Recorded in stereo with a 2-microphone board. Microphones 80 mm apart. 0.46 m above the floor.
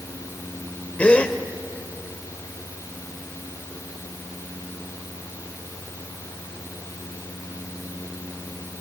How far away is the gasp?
About 1.0 m.